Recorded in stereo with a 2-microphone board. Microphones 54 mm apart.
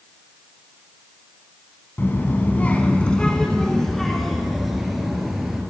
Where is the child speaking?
40° left (ahead or behind), 0.9 m; by 5.6 s 5° right (ahead or behind), 2 m.